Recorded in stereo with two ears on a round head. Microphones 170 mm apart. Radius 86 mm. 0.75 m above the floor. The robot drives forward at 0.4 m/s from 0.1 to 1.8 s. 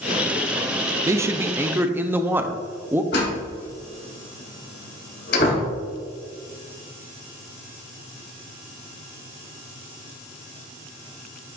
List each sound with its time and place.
1.1 s a man speaking: 15° right (ahead or behind), 0.5 m; by 3.0 s 10° right (ahead or behind), 0.7 m
3.1 s a door slam: 60° left (ahead or behind), 3 m